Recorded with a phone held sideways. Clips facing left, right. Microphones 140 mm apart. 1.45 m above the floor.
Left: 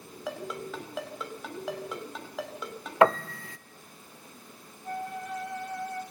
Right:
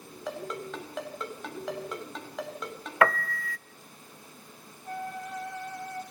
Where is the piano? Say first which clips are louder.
Left 3 dB; 25° left (ahead or behind), 0.5 m.